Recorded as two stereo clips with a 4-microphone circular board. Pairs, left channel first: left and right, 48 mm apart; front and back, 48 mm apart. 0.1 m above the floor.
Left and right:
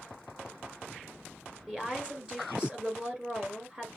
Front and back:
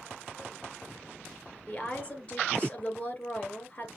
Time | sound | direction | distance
1.7 | a woman speaking | 40° right | 1.9 m